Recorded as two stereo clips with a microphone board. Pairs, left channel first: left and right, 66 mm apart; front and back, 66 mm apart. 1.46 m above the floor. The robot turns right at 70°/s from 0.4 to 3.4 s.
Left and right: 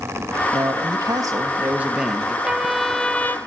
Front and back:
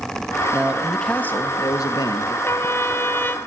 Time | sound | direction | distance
0.5 | a man speaking | 115° right | 2.5 m
2.5 | a trumpet | 20° right | 1.5 m